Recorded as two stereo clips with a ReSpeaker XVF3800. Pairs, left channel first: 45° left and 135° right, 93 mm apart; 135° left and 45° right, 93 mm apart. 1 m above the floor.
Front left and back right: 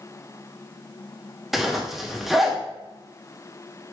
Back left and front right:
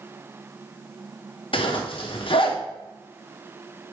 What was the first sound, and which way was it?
A zipper, 135° left.